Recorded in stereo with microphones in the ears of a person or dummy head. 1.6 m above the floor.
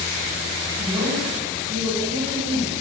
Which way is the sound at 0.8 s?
55° right (ahead or behind).